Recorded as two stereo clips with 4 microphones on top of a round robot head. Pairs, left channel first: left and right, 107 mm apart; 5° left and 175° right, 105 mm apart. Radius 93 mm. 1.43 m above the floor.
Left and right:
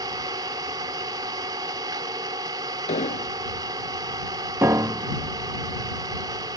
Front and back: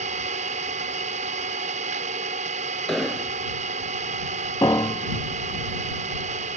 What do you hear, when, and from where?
0.0 s an engine running: 155° right
2.9 s an explosion: 90° left
4.6 s a piano: 40° right